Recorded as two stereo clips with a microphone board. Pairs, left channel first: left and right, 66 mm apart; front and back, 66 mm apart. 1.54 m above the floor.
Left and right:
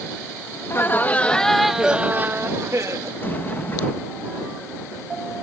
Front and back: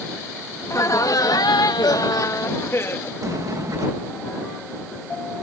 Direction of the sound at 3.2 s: 150° left.